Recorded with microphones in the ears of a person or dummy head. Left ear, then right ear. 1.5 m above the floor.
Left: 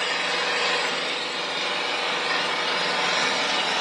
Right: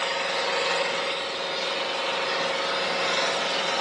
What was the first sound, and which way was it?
An engine running, 20° left (ahead or behind).